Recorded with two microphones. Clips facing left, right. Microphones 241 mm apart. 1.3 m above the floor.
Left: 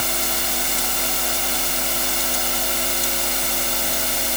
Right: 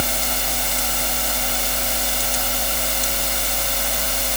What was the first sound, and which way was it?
Only background noise.